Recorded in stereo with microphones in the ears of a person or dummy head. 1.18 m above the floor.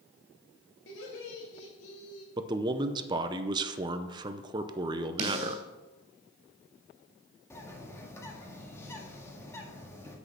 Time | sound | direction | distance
0.9 | laughter | 65° left (ahead or behind) | 2.5 m
2.4 | a man speaking | 25° right (ahead or behind) | 0.6 m
5.2 | a snare drum | 40° right (ahead or behind) | 3 m
7.5 | a bird | 10° left (ahead or behind) | 1.6 m